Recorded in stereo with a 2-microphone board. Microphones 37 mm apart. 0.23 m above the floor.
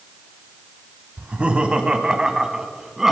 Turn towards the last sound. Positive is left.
turn(degrees=-10)  # may be behind; listen again after turning